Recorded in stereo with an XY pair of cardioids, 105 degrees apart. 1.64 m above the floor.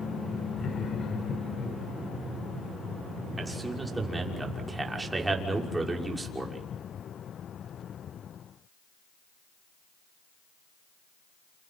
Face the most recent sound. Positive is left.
turn(degrees=-20)